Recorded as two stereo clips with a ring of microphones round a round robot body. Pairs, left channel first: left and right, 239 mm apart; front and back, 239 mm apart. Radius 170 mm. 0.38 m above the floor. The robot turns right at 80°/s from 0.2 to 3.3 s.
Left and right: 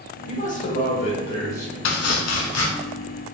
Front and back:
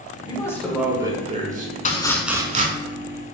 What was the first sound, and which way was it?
A man speaking, 55° left.